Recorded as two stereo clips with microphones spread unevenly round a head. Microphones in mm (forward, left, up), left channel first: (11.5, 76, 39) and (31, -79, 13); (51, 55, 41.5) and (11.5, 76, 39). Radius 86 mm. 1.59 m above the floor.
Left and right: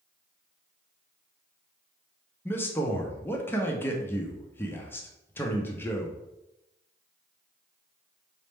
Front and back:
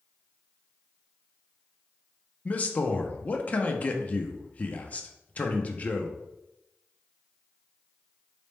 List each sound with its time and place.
2.5 s a man speaking: 25° left, 0.5 m